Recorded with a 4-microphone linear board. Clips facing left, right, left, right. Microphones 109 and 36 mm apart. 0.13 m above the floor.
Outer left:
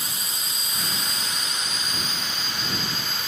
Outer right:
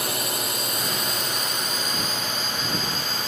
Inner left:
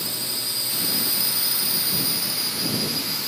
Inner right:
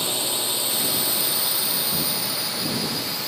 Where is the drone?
65° right (ahead or behind); by 3.3 s 40° right (ahead or behind).